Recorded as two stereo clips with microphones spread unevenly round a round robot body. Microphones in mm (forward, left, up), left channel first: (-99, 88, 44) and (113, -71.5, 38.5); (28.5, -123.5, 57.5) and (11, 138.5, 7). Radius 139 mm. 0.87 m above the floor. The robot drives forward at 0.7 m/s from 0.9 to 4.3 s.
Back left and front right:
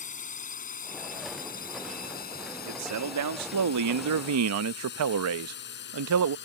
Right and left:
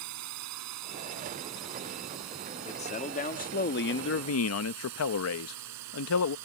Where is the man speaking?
20° right; by 6.4 s 55° right.